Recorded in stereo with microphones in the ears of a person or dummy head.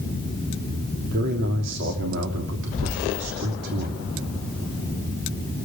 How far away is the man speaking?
About 3 m.